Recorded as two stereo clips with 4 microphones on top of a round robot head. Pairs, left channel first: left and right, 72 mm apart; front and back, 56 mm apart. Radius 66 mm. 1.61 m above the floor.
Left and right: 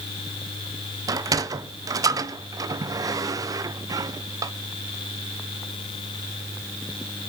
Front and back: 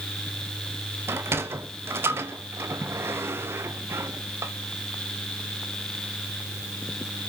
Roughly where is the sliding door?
Behind right.